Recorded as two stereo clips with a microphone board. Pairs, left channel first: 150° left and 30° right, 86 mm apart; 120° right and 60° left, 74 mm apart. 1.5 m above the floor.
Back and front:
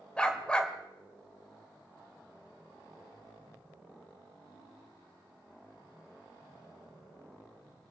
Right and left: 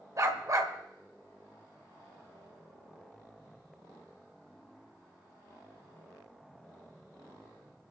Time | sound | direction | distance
0.2 | a dog barking | 75° left | 1.7 m